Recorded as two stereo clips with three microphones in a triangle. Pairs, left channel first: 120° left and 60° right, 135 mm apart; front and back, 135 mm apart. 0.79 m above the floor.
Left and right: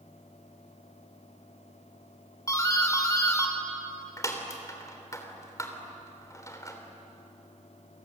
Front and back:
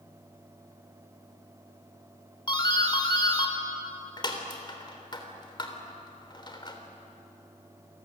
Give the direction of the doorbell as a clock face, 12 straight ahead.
10 o'clock.